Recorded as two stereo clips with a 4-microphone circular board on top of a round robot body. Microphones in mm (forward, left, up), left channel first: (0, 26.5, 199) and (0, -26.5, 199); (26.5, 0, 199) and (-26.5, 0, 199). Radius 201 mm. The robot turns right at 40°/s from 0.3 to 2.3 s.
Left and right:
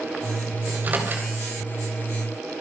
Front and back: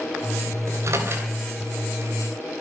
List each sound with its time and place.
0.7 s a microwave: 155° right, 3.5 m; by 1.3 s 130° right, 3.5 m